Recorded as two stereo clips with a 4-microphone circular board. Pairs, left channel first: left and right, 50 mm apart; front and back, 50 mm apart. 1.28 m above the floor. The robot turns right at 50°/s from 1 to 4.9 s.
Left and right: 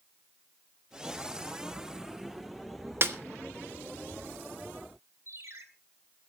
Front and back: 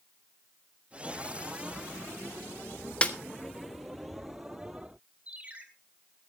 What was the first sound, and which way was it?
A snare drum, 60° right.